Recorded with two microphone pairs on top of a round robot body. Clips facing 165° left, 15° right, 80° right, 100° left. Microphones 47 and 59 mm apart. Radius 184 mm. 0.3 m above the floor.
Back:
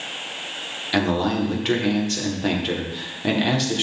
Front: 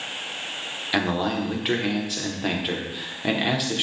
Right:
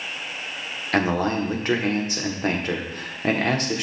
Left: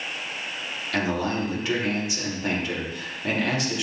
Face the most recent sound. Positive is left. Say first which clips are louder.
# back 3 dB, right 4 dB
turn(degrees=-95)